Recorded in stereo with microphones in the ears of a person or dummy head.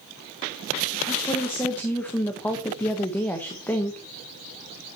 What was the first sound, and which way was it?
A woman speaking, 15° left (ahead or behind).